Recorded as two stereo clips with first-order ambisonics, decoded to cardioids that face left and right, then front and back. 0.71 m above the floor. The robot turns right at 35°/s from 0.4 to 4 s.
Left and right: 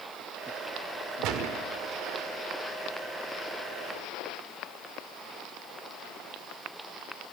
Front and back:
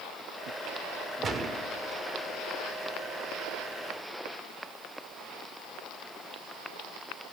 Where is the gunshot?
120° right, 0.9 m; by 1.7 s 100° right, 0.9 m.